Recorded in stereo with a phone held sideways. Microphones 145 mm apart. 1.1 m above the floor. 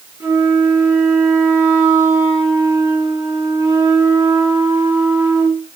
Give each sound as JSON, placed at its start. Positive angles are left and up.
{"t": 0.2, "sound": "a flute", "side_deg": -20, "distance_m": 4.0}